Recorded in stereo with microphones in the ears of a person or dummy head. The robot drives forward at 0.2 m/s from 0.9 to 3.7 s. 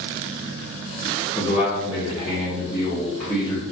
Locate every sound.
1.4 s a man speaking: 30° left (ahead or behind), 0.7 m; by 3.6 s 15° left (ahead or behind), 1.1 m